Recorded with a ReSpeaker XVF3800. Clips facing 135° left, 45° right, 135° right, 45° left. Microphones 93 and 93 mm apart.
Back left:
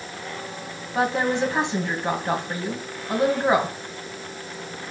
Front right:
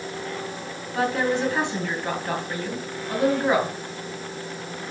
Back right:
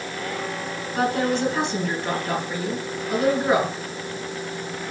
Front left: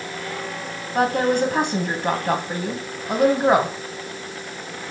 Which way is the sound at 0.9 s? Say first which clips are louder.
Back left 1 dB, front left 3 dB; 65° left.